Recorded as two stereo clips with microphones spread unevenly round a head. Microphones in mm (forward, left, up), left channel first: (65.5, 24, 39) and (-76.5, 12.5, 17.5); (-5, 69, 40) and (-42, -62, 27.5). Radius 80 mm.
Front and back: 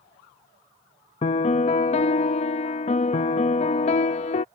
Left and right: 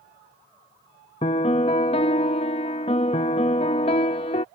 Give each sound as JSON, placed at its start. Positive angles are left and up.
{"t": 1.2, "sound": "a piano", "azimuth_deg": 30}